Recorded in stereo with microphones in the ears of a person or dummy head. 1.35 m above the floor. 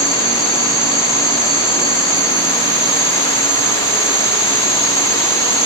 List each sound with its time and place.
0.0 s an insect: 15° right (ahead or behind), 1.8 m